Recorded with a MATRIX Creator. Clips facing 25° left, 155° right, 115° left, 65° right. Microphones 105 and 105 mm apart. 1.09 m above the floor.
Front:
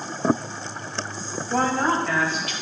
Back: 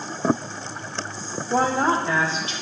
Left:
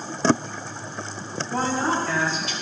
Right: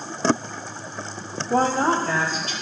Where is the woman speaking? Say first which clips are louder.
Back 2 dB, right 4 dB; 80° right, 1.1 m; by 2.5 s 100° right, 2 m.